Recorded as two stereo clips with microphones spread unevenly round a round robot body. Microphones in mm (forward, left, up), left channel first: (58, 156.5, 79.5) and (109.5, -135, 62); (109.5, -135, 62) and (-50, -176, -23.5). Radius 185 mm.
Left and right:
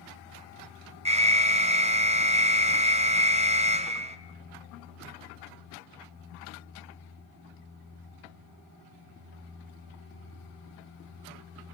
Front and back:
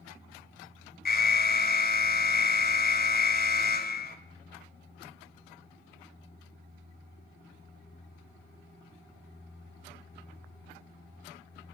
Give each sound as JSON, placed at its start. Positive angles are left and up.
{"t": 1.1, "sound": "an alarm", "azimuth_deg": -25, "distance_m": 2.0}